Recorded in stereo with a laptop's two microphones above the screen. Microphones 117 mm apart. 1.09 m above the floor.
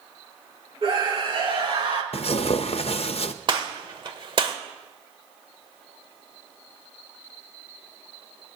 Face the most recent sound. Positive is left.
turn(degrees=-45)  # may be behind; listen again after turning